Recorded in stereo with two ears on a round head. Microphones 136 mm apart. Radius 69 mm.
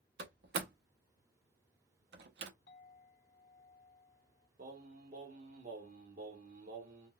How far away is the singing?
About 0.9 m.